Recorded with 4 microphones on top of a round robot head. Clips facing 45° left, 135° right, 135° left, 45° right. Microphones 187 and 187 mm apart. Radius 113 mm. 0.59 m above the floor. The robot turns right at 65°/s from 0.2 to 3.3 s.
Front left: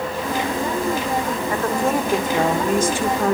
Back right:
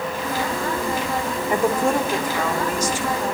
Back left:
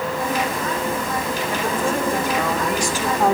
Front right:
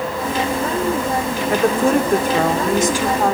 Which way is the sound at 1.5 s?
65° right.